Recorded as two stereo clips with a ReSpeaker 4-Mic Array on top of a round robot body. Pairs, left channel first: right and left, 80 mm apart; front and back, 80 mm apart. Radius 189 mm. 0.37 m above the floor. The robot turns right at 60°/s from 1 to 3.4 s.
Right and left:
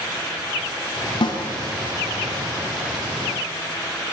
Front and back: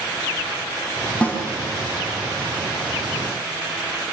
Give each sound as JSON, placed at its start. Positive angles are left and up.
{"t": 1.2, "sound": "a snare drum", "azimuth_deg": -75, "distance_m": 4.5}